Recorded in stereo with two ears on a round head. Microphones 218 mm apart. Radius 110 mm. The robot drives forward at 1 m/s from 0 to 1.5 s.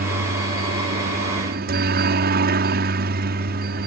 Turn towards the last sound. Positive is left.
turn(degrees=-40)  # may be behind; listen again after turning